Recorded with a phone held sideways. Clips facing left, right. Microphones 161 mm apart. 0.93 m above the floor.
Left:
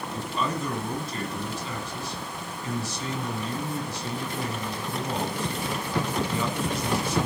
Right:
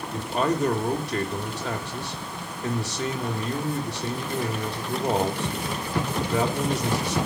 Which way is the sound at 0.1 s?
75° right (ahead or behind).